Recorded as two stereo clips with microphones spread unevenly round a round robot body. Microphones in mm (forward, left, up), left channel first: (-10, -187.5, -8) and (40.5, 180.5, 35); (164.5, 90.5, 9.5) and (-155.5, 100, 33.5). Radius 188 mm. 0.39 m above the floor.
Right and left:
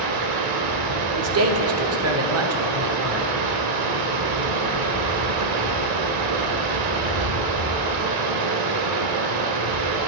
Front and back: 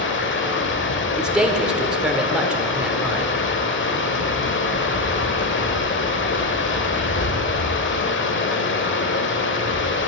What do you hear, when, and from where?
0.0 s running water: 50° left, 0.8 m
1.2 s a man speaking: 85° left, 0.8 m